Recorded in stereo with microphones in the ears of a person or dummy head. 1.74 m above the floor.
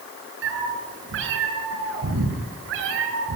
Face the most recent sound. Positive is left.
turn(degrees=-65)  # may be behind; listen again after turning